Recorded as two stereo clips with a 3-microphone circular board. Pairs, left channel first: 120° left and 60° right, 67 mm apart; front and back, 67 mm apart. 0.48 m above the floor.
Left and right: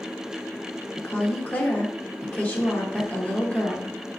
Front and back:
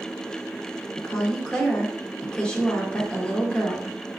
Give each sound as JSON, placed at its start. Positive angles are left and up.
{"t": 1.0, "sound": "a woman speaking", "azimuth_deg": 70, "distance_m": 0.9}